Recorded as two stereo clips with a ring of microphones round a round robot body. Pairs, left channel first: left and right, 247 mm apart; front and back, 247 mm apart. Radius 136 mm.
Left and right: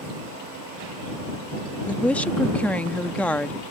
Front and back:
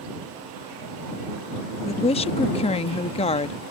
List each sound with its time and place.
1.9 s a woman speaking: 15° left